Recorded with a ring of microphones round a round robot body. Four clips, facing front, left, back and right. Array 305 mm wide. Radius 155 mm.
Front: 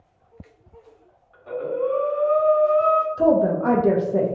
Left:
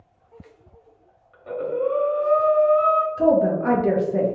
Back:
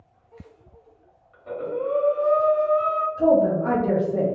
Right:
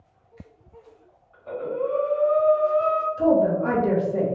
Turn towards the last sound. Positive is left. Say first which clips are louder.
# right 2 dB, back 4 dB
turn(degrees=25)